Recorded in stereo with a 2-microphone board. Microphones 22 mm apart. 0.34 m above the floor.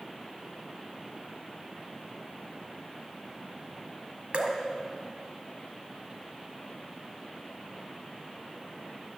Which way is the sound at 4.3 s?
75° right (ahead or behind).